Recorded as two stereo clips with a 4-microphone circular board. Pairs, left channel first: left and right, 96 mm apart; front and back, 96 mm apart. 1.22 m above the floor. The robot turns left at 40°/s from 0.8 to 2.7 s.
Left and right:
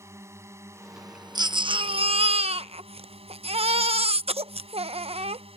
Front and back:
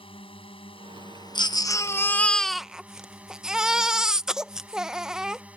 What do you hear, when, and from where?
0.0 s a drone: 25° right; by 5.6 s 105° right
1.4 s a baby crying: 40° right; by 5.4 s 95° right